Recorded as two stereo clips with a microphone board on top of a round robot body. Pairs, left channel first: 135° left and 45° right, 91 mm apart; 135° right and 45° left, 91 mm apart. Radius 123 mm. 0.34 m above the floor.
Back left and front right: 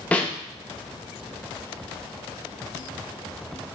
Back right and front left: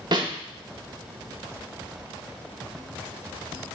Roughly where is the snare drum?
Ahead left.